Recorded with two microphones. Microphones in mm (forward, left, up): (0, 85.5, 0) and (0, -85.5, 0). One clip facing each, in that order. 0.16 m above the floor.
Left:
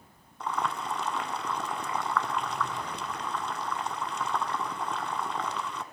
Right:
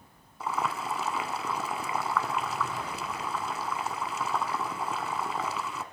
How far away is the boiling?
About 0.7 m.